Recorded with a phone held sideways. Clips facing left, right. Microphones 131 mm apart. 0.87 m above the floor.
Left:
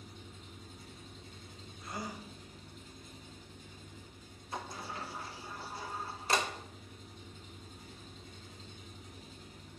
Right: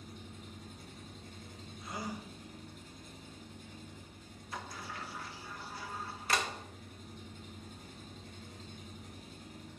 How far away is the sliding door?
About 1.1 m.